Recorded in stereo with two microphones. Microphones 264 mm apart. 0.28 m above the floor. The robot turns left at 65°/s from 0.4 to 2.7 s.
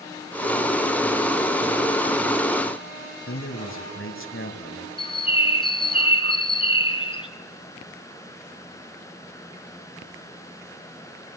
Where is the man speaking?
50° left (ahead or behind), 1.7 m.